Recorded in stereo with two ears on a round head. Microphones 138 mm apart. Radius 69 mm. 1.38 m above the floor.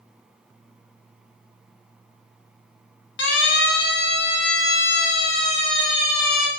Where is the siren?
90° left, 6.5 m; by 6.5 s 75° left (ahead or behind), 7.5 m.